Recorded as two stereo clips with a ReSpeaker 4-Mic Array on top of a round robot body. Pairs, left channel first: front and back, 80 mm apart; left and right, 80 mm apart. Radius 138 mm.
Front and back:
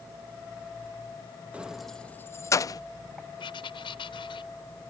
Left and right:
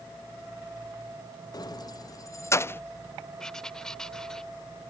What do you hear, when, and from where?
1.5 s keys jangling: 110° left; by 2.8 s 30° left
3.4 s writing: 5° left